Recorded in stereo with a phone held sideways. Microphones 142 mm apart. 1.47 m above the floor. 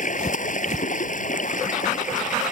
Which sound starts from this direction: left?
Running water, at 0.0 s.